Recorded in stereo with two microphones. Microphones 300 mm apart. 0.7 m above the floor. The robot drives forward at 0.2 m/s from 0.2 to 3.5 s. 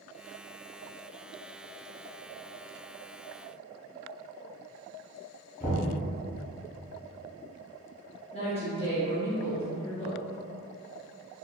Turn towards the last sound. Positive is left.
turn(degrees=20)  # may be behind; listen again after turning